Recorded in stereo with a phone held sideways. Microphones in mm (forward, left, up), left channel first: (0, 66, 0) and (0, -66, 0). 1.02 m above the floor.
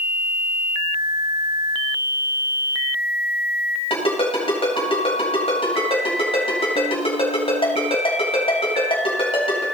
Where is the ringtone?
45° left (ahead or behind), 4 m.